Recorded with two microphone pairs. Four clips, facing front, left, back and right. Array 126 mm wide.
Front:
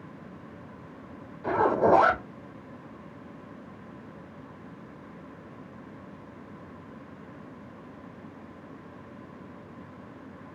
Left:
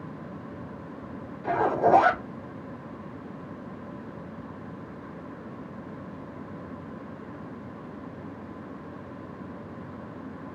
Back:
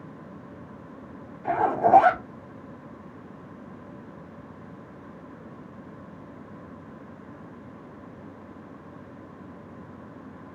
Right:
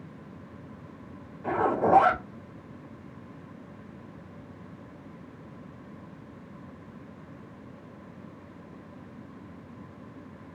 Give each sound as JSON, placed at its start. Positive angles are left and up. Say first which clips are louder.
{"t": 1.4, "sound": "a zipper", "louder": "left 2 dB, even", "azimuth_deg": -5, "distance_m": 4.0}